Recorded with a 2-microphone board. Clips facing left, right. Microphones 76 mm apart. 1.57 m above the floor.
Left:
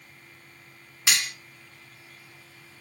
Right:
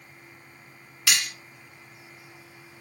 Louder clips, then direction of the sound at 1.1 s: Even; 25° left (ahead or behind).